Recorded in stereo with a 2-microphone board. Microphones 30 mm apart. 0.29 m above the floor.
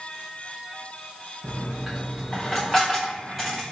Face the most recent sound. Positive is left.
turn(degrees=5)  # may be behind; listen again after turning